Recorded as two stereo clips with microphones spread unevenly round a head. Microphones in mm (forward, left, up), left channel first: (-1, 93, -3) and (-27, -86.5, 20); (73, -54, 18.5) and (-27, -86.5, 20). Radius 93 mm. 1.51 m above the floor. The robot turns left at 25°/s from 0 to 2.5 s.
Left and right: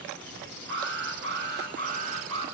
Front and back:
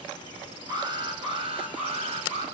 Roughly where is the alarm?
Right.